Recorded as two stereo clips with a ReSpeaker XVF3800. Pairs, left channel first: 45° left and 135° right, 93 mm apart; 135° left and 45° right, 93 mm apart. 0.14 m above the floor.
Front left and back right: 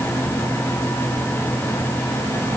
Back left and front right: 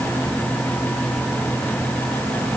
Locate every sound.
Only background noise.